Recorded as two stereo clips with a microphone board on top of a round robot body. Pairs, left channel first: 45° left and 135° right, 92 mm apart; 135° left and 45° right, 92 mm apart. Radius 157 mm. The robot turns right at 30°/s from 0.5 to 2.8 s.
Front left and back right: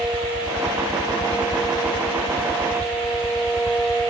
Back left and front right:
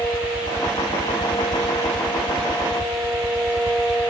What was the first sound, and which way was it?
A helicopter, 95° right.